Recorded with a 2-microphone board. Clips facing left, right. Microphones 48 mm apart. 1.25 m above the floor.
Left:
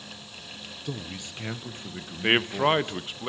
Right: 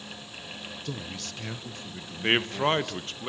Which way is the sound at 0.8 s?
10° left (ahead or behind).